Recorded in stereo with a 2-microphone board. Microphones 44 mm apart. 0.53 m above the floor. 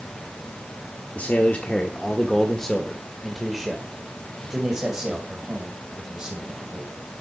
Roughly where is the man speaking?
Left.